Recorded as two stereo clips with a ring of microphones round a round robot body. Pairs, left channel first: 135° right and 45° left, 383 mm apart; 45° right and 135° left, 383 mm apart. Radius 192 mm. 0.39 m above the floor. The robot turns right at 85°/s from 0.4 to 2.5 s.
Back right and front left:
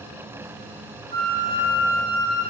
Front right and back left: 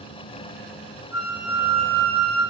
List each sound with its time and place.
1.1 s a flute: 105° left, 3 m; by 2.4 s 145° right, 3 m